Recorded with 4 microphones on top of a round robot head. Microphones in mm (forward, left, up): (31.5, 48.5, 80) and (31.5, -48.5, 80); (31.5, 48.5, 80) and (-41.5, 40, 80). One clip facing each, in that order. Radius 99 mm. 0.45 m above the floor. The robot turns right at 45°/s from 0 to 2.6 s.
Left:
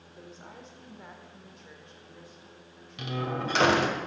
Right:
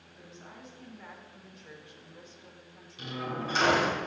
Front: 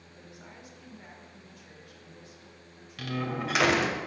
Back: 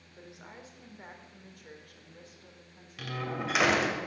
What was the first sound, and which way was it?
A woman speaking, 115° left.